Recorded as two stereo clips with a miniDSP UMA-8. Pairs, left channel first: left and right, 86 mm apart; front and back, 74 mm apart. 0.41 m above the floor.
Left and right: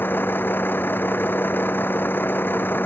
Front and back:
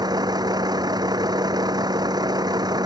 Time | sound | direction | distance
0.0 | a vehicle | 155° left | ?